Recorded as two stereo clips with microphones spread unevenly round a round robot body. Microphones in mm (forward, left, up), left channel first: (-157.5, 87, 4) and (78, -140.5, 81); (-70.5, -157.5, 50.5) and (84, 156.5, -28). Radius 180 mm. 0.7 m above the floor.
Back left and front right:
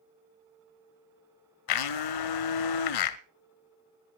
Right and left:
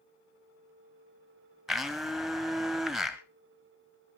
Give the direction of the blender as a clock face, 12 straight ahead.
7 o'clock.